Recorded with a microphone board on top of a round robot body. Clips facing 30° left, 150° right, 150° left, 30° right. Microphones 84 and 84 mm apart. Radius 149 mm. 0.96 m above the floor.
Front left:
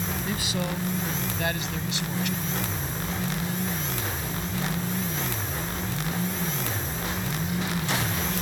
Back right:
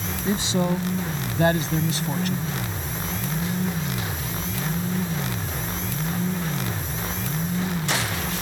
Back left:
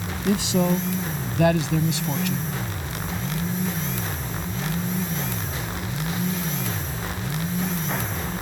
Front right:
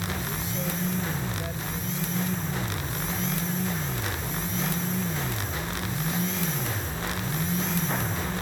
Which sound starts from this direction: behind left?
A man speaking, at 0.2 s.